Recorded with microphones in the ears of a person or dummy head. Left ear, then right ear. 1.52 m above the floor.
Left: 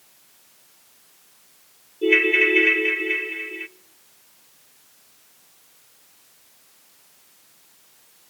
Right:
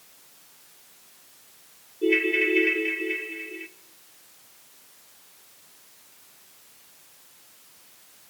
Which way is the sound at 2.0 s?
40° left (ahead or behind).